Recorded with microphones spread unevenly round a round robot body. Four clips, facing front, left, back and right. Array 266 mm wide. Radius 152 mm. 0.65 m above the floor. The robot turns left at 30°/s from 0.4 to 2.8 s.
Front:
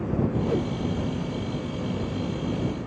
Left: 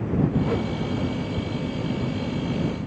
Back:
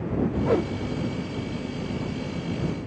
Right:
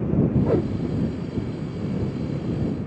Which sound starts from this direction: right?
A whoosh, at 0.5 s.